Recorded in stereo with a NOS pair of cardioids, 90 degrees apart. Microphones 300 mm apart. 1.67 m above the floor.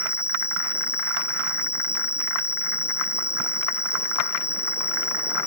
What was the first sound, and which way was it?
An insect, 10° left.